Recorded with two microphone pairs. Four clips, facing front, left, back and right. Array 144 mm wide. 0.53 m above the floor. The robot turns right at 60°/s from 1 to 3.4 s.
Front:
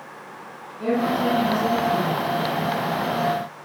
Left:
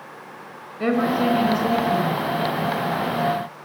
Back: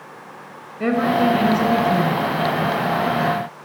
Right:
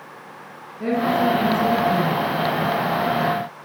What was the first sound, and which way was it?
A woman speaking, 130° left.